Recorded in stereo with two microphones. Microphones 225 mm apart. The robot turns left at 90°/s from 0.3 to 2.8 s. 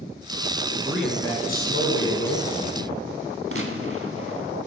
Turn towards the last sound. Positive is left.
turn(degrees=-70)  # may be behind; listen again after turning